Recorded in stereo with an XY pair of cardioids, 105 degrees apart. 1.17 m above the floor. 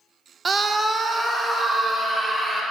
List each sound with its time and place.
0.5 s a scream: 35° right, 0.6 m; by 2.6 s 20° right, 3 m